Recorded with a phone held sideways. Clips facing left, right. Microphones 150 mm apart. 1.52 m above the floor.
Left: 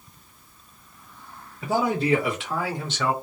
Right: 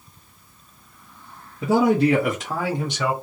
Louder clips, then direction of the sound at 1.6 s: Right 6 dB; 85° right.